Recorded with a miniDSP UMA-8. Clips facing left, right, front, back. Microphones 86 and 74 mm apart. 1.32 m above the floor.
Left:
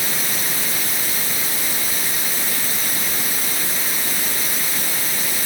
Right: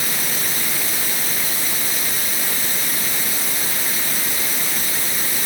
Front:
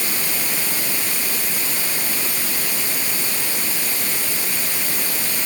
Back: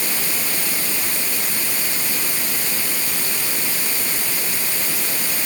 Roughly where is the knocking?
I don't hear knocking.